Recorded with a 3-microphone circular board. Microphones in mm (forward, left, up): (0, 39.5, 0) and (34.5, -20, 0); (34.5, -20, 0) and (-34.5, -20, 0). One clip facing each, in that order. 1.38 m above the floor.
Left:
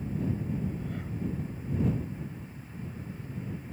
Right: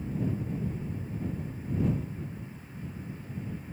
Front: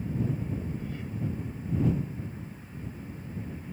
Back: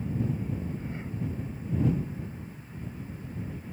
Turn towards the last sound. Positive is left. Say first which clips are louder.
# even, even
turn(degrees=120)